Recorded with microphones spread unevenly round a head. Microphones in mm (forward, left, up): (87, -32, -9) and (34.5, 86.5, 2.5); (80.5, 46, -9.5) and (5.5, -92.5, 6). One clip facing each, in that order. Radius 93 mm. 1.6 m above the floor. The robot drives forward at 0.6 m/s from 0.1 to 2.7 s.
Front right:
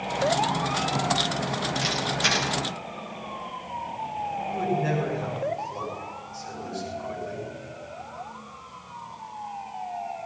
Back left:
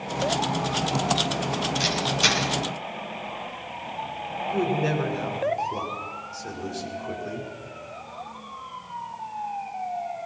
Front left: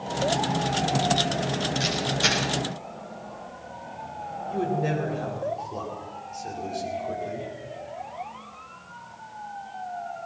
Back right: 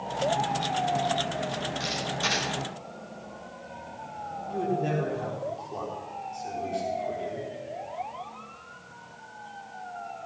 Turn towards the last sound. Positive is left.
turn(degrees=145)